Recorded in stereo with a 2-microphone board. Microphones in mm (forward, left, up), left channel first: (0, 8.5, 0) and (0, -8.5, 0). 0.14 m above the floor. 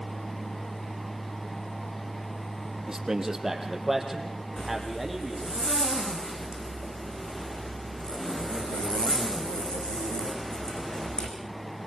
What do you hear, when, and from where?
2.9 s a man speaking: 35° right (ahead or behind), 4.5 m; by 5.6 s centre (ahead or behind), 6.5 m
4.6 s a zipper: 60° left (ahead or behind), 7.5 m